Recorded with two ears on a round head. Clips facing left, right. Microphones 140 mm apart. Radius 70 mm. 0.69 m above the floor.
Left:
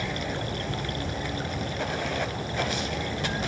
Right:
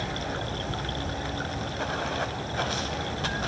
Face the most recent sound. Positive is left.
turn(degrees=15)  # may be behind; listen again after turning